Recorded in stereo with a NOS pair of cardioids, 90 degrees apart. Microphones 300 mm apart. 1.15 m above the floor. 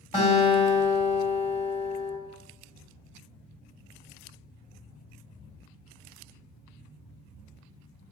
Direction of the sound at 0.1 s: 15° left.